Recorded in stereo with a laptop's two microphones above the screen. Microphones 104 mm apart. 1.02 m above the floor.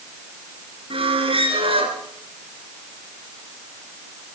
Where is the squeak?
60° right (ahead or behind), 2.5 m.